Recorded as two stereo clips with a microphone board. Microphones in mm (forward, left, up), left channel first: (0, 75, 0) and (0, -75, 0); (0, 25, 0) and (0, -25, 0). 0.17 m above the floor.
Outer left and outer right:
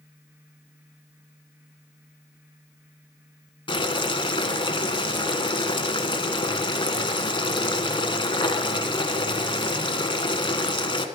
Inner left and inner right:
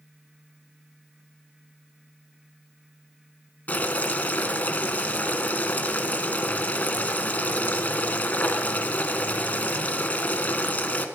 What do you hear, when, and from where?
3.7 s boiling: 35° left (ahead or behind), 1.1 m